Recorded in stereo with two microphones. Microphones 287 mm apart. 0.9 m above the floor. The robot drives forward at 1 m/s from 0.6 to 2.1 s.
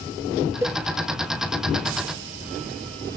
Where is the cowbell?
10° right (ahead or behind).